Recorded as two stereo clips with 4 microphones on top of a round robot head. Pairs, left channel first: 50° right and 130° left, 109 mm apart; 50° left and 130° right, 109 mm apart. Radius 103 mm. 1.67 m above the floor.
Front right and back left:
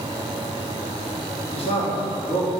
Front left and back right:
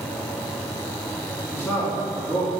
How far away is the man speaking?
About 2.5 m.